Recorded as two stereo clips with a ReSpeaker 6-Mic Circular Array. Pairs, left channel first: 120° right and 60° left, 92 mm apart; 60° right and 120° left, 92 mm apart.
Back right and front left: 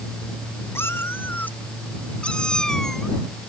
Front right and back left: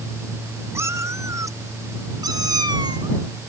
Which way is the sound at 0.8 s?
Straight behind.